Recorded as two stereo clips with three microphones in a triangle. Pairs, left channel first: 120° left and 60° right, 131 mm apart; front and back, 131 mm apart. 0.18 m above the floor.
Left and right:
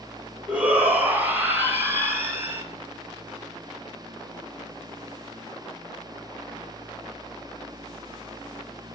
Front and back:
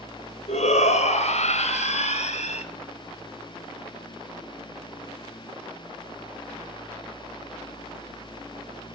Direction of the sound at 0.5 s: 20° left.